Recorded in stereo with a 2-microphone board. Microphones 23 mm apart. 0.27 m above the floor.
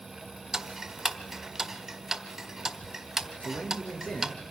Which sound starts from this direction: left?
A man speaking, at 3.4 s.